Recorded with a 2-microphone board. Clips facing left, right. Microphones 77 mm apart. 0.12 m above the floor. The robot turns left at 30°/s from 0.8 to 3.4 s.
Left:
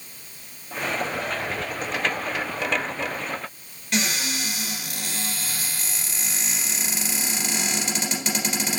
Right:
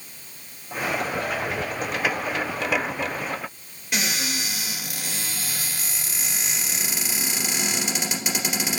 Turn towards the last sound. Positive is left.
turn(degrees=-10)  # may be behind; listen again after turning